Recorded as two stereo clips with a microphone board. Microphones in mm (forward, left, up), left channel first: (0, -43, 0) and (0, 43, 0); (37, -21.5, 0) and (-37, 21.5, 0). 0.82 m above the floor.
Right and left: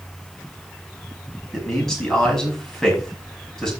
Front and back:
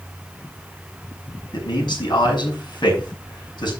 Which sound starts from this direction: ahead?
A man speaking, at 1.5 s.